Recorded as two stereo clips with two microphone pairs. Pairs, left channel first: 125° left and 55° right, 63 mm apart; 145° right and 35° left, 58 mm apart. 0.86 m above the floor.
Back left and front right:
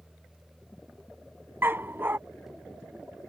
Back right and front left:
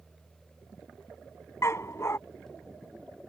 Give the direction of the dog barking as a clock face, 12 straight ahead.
4 o'clock.